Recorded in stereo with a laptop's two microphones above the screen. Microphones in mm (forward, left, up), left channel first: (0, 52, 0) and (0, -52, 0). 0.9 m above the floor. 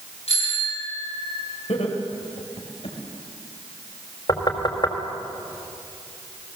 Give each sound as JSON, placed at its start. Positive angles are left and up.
{"t": 0.3, "sound": "a bicycle bell", "side_deg": 85, "distance_m": 9.0}
{"t": 1.7, "sound": "laughter", "side_deg": 80, "distance_m": 3.5}
{"t": 4.3, "sound": "knocking", "side_deg": 45, "distance_m": 3.5}